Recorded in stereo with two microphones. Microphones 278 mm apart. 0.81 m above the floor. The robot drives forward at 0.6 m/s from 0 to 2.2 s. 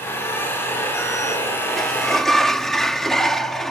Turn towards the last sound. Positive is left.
turn(degrees=0)  # may be behind; listen again after turning